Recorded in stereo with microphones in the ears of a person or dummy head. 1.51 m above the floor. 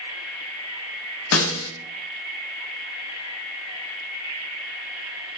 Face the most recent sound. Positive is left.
turn(degrees=80)